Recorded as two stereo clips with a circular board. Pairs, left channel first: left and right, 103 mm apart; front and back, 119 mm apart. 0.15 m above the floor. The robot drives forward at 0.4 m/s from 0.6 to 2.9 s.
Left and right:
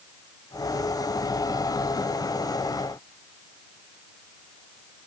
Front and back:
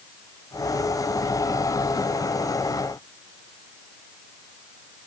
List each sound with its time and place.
Only background noise.